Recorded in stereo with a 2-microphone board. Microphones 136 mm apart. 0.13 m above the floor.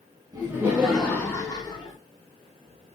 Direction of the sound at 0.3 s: 25° right (ahead or behind).